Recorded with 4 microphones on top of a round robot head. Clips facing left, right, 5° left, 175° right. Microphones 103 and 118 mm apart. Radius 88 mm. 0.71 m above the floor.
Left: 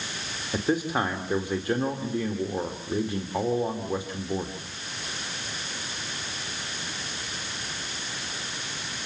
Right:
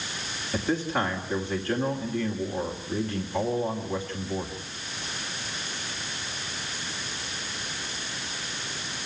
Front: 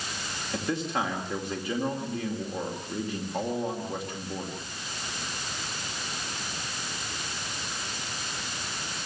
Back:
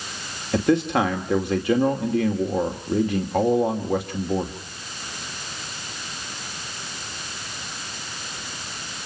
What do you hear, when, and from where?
0.5 s a man speaking: 170° left, 2.5 m